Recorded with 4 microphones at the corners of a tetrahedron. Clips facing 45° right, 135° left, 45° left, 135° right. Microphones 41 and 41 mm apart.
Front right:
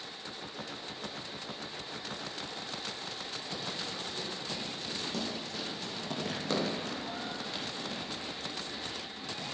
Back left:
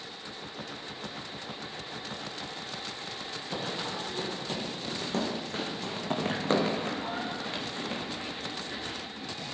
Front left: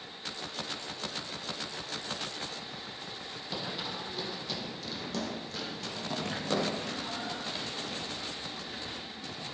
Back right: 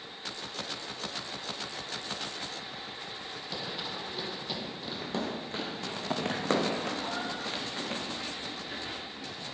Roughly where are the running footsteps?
Behind left.